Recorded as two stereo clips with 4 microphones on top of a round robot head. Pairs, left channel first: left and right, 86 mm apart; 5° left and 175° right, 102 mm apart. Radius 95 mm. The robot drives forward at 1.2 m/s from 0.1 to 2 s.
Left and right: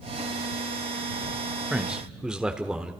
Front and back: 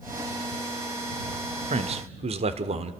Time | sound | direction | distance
1.7 | a man speaking | 170° right | 1.3 m